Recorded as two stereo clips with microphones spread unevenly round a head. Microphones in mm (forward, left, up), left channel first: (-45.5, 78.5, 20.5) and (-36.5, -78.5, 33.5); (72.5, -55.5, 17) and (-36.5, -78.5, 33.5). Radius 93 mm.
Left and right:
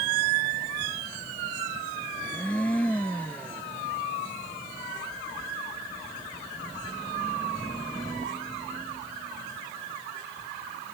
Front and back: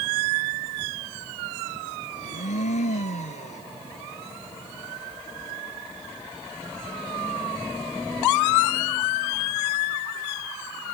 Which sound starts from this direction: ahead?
A blender, at 2.2 s.